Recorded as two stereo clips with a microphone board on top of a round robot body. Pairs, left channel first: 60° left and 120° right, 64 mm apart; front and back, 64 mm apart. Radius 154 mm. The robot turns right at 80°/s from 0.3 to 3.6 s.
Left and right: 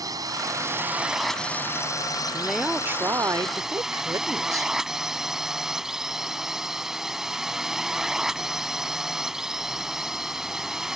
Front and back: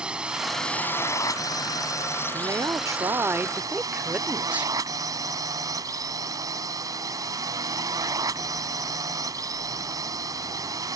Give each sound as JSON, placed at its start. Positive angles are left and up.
{"t": 0.0, "sound": "a drone", "azimuth_deg": -105}
{"t": 2.3, "sound": "a woman speaking", "azimuth_deg": 145}